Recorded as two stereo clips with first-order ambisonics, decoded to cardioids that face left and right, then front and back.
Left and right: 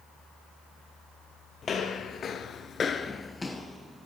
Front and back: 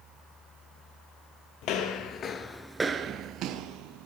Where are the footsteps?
25° left, 0.8 m; by 4.1 s straight behind, 0.9 m.